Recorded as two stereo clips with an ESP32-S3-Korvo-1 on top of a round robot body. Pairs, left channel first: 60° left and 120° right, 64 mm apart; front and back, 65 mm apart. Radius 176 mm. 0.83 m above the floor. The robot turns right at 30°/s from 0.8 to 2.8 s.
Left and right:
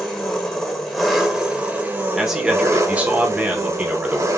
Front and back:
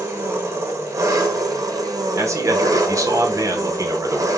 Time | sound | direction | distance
0.0 | an engine running | 140° left | 0.8 m
2.1 | a man speaking | 155° left | 1.1 m